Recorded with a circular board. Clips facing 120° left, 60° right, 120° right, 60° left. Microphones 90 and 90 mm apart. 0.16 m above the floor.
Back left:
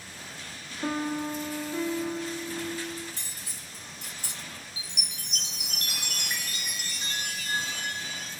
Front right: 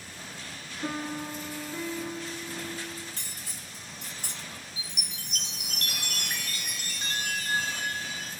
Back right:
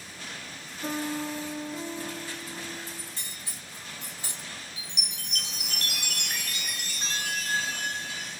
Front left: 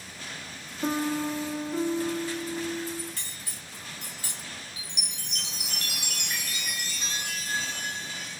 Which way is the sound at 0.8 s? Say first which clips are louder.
Back left 4 dB, front left 4 dB; 60° left.